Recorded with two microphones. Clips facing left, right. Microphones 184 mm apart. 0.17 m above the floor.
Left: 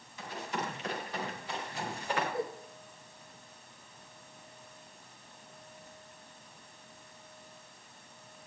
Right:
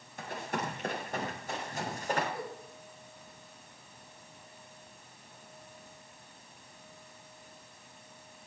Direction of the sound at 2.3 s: 25° left (ahead or behind).